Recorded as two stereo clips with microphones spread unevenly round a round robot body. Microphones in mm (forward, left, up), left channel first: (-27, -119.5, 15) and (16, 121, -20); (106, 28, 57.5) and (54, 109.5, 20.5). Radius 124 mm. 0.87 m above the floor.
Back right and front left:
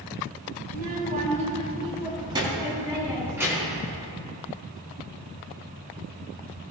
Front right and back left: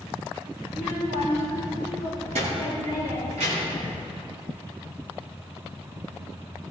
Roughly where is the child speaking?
Behind left.